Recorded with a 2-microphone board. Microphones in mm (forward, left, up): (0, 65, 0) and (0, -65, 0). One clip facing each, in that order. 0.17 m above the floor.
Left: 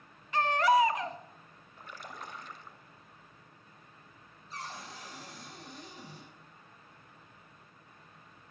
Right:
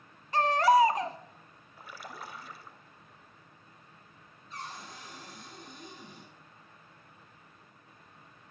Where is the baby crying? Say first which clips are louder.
Right 3 dB; 35° right (ahead or behind), 0.6 m.